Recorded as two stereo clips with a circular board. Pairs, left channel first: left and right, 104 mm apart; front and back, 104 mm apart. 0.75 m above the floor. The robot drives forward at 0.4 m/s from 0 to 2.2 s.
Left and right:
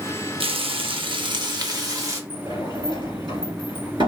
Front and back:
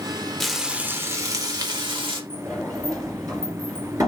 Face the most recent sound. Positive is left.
turn(degrees=-125)